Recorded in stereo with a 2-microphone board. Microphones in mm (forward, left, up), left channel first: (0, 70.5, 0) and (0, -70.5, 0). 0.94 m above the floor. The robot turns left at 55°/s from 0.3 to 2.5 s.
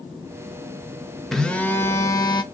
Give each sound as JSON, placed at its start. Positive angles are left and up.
{"t": 1.3, "sound": "a phone buzzing", "azimuth_deg": 180, "distance_m": 0.7}